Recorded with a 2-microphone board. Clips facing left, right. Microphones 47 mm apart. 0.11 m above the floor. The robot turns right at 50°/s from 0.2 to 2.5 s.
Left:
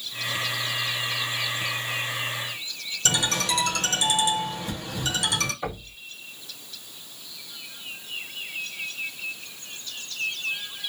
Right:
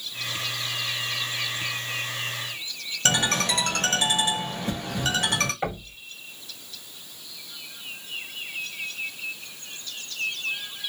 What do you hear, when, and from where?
3.0 s a ringtone: 45° right (ahead or behind), 1.5 m
5.6 s knocking: 50° right (ahead or behind), 2 m